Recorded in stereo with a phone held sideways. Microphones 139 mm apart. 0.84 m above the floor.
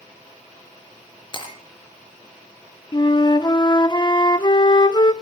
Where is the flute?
30° left (ahead or behind), 0.6 m.